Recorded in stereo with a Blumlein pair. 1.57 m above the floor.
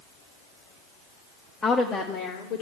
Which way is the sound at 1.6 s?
15° left.